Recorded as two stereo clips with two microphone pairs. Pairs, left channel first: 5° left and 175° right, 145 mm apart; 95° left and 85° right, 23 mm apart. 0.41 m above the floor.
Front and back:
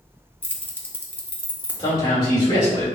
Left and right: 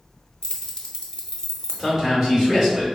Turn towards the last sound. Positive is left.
turn(degrees=-20)